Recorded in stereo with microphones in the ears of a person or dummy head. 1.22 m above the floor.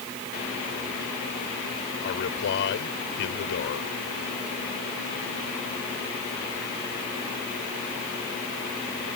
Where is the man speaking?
55° left (ahead or behind).